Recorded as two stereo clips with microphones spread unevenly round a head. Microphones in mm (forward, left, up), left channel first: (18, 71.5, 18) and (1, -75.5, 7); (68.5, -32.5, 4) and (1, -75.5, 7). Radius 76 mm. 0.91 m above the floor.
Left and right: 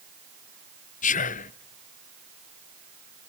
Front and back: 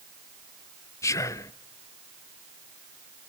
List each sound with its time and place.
1.0 s whispering: 75° left, 0.7 m